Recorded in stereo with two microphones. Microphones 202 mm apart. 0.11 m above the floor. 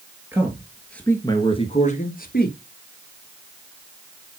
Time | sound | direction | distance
0.3 | a man speaking | 10° right (ahead or behind) | 2 m